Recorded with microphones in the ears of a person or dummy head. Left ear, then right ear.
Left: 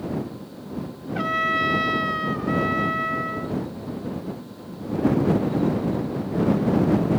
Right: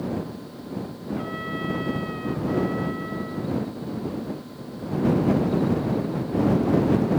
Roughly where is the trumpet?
Left.